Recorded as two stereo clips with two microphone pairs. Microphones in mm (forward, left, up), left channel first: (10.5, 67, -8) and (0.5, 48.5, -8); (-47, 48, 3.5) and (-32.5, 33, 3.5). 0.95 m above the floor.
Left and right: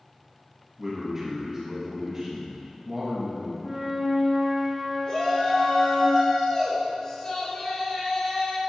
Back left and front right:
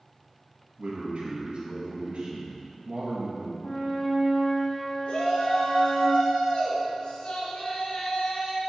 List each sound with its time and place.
0.8 s a man speaking: 55° right, 1.2 m
3.6 s a flute: 170° left, 2.5 m
5.1 s a shout: 115° left, 2.5 m